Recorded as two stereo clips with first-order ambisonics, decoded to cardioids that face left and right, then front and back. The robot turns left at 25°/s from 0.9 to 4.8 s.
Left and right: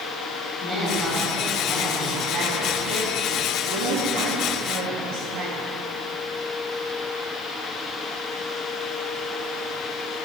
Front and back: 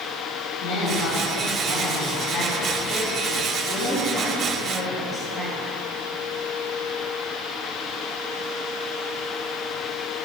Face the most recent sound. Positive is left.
turn(degrees=-90)